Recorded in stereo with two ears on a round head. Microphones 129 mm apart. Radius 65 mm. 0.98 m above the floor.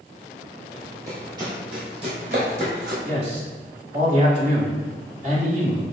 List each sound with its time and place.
0.7 s running footsteps: 15° right (ahead or behind), 1.4 m; by 2.9 s 60° right (ahead or behind), 2 m
3.0 s a man speaking: 50° right (ahead or behind), 1.8 m